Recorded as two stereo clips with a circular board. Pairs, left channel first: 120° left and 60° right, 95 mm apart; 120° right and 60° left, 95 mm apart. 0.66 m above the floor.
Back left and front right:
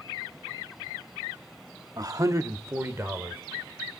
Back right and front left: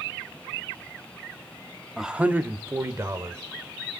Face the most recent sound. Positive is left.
turn(degrees=5)